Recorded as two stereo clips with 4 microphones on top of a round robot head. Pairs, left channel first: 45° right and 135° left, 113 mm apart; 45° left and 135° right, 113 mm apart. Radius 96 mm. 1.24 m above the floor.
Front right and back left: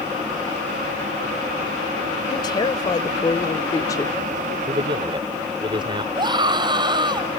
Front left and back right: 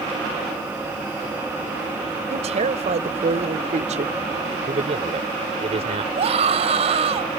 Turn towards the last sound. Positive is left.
turn(degrees=-170)